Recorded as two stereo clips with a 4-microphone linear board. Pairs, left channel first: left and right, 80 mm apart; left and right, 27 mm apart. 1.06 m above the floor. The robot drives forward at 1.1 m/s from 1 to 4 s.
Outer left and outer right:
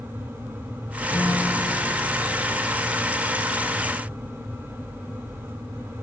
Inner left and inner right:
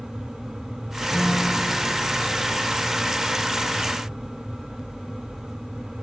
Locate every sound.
1.1 s a guitar: 40° left (ahead or behind), 6.5 m; by 2.5 s 30° left (ahead or behind), 8 m